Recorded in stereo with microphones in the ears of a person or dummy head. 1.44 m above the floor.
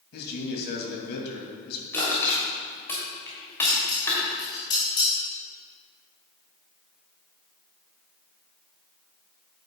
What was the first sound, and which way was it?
A man speaking, 60° left (ahead or behind).